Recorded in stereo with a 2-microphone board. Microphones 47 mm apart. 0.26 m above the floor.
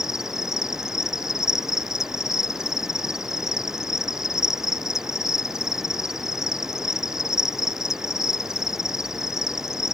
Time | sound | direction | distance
0.0 | an insect | 10° right (ahead or behind) | ?